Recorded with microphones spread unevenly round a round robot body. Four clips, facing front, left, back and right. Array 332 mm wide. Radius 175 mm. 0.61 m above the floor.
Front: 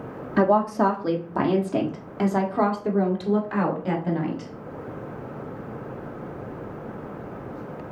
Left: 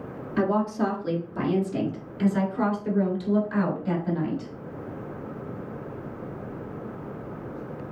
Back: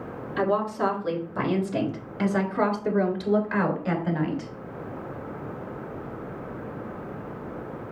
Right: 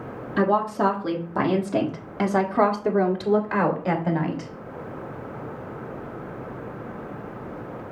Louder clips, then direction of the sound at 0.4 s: Right 3 dB, front 5 dB; 15° right.